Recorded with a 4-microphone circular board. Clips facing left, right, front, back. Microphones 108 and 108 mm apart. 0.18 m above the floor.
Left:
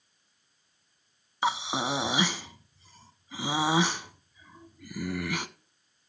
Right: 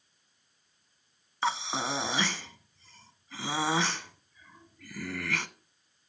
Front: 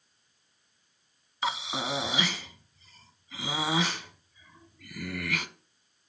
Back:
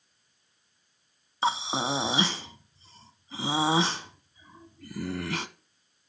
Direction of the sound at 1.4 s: 155° left.